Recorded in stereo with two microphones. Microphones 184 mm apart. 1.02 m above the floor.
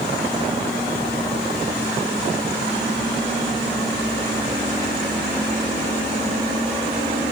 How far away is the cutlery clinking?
No cutlery clinking in this recording.